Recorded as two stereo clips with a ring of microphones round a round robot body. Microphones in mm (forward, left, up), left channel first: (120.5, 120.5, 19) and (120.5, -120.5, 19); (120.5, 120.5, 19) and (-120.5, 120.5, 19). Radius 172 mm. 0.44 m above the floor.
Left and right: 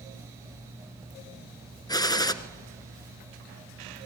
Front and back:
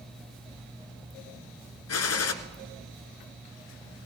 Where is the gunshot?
15° left, 1.6 m.